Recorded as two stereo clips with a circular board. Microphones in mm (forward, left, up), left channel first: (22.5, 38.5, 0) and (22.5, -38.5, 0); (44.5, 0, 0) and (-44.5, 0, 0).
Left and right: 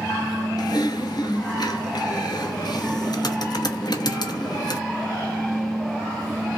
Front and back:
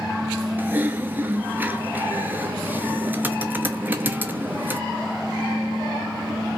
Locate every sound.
0.6 s typing on a keyboard: 110° left, 0.9 m